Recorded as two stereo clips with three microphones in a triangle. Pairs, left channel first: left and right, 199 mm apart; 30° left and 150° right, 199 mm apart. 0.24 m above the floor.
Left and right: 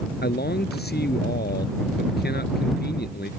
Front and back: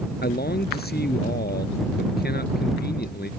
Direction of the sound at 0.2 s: 60° left.